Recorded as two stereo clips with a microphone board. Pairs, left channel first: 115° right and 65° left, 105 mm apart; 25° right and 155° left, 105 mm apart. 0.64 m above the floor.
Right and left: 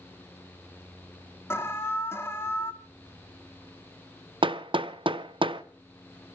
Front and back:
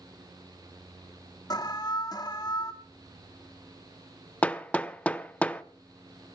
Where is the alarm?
55° right, 1.9 m.